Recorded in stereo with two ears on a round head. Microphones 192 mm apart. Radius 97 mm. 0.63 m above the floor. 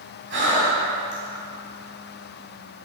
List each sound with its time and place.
0.3 s breathing: 55° right (ahead or behind), 2.0 m